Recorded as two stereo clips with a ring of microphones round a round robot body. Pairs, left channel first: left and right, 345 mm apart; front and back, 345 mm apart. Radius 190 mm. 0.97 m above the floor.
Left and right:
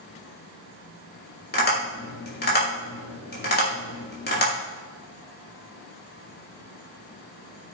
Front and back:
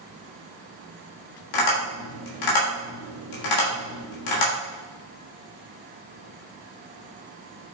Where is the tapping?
25° left, 3.5 m.